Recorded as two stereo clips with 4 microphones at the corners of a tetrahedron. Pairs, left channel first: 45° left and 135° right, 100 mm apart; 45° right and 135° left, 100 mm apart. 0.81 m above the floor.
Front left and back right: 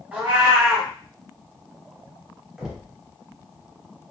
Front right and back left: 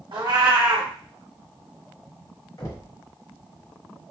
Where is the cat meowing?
150° left, 1.0 m.